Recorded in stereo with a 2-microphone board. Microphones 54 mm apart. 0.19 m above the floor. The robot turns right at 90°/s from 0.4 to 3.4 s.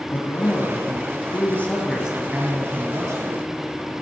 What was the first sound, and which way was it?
A man speaking, 40° left.